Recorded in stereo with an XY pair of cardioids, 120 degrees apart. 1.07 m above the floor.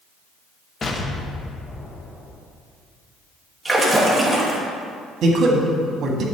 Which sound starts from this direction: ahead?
A splash, at 3.6 s.